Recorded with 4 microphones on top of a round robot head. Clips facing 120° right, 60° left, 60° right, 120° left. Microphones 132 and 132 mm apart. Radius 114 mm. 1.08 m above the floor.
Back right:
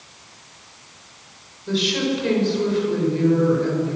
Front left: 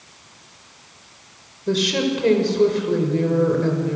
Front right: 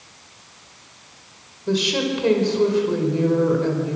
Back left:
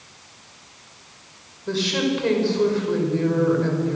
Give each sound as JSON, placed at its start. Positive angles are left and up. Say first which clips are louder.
{"t": 1.7, "sound": "a woman speaking", "louder": "front left 2 dB, front right 1 dB", "azimuth_deg": 15, "distance_m": 5.5}